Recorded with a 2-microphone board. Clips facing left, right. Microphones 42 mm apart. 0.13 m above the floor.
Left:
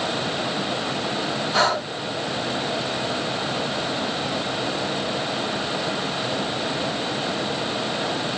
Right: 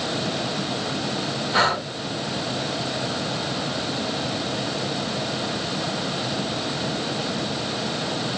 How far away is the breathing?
About 1.1 m.